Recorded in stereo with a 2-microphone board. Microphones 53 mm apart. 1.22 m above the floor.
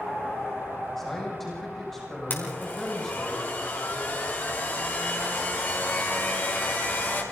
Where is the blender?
40° left (ahead or behind), 5 m.